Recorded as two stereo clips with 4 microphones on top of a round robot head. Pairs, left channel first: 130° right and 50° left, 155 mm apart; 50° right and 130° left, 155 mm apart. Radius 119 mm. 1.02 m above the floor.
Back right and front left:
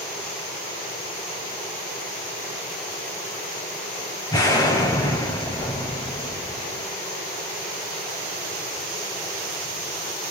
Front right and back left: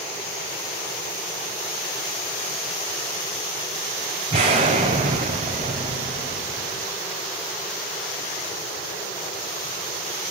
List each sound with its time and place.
4.3 s an explosion: 170° left, 0.9 m